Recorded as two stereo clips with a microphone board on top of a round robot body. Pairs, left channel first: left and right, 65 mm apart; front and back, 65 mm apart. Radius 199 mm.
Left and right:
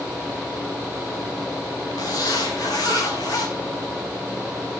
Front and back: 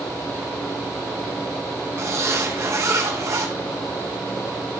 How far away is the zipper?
About 3 m.